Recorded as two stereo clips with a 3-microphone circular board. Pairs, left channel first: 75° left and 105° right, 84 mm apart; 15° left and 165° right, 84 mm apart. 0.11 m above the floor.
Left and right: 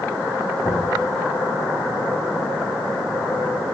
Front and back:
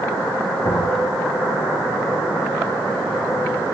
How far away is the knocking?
About 6.5 m.